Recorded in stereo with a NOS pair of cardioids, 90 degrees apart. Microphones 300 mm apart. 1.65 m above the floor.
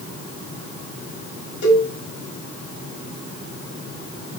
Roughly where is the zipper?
No zipper in this recording.